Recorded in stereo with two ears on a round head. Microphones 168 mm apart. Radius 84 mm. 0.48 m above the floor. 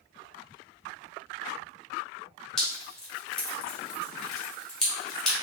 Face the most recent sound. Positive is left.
turn(degrees=5)  # may be behind; listen again after turning